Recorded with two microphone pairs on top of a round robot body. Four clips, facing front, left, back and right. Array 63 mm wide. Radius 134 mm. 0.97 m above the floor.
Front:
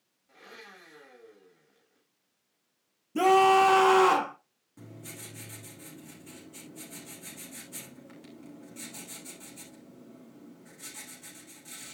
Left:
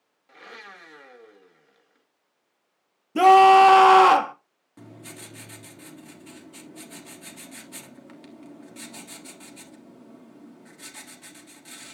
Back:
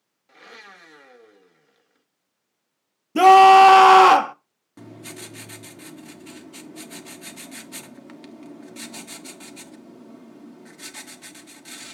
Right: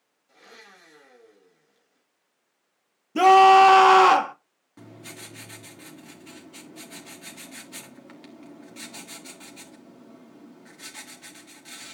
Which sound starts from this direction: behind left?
A blender, at 0.3 s.